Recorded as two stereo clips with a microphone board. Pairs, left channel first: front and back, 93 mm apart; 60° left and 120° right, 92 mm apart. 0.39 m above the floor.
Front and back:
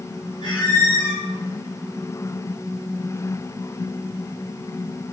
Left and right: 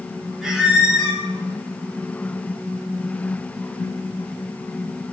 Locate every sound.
0.4 s a squeak: 35° right, 1.6 m